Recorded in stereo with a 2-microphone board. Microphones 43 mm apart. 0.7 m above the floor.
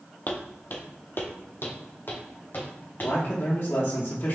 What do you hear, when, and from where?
0.3 s footsteps: 40° left (ahead or behind), 1.0 m; by 3.1 s 45° left (ahead or behind), 2 m
3.0 s a man speaking: 50° left (ahead or behind), 1.1 m